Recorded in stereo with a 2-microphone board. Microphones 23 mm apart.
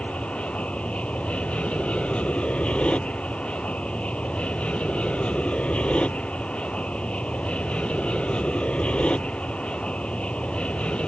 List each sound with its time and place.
0.0 s an aircraft: 65° left (ahead or behind); by 11.1 s 55° left (ahead or behind)